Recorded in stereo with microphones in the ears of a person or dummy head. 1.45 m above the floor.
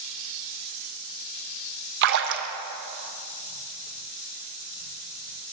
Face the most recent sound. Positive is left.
turn(degrees=-65)  # may be behind; listen again after turning